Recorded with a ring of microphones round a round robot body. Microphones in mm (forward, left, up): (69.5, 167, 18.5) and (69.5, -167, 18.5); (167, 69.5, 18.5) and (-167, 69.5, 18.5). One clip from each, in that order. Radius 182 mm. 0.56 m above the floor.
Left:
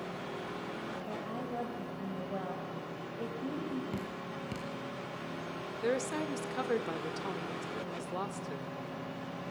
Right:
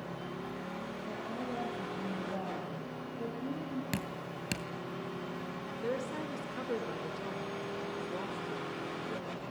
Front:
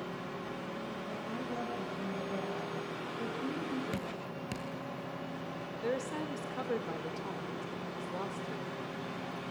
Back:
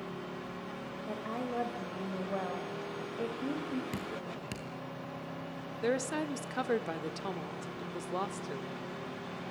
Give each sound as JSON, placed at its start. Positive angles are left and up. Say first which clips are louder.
{"t": 1.1, "sound": "a woman speaking", "louder": "even, back 6 dB", "azimuth_deg": 170, "distance_m": 3.0}
{"t": 3.9, "sound": "dripping", "louder": "even, even", "azimuth_deg": -95, "distance_m": 2.5}
{"t": 5.8, "sound": "a woman speaking", "louder": "left 4 dB, back 4 dB", "azimuth_deg": 145, "distance_m": 1.4}